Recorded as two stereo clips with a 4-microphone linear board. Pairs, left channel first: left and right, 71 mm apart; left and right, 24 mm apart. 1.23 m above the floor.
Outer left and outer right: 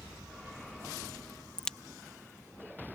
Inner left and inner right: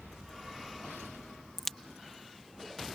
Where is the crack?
10° left (ahead or behind).